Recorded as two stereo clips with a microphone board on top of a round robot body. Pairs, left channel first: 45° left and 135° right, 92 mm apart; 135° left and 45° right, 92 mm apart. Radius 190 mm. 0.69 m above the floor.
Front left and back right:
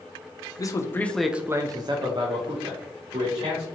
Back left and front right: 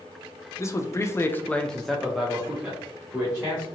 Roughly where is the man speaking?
Left.